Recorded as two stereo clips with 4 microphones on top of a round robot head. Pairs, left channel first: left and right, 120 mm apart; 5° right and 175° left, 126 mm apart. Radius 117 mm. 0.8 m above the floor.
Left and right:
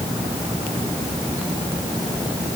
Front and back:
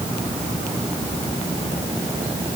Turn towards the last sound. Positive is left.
No sound to turn to.